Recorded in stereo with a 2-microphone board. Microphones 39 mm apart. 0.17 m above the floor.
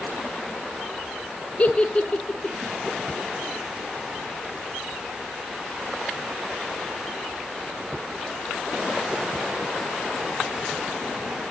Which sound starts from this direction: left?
A giggle, at 1.6 s.